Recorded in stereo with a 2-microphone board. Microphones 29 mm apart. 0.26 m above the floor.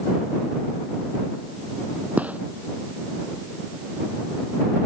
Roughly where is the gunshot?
Right.